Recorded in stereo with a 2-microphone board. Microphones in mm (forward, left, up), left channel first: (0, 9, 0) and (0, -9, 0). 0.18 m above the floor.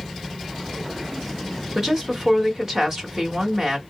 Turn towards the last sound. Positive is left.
turn(degrees=-30)  # may be behind; listen again after turning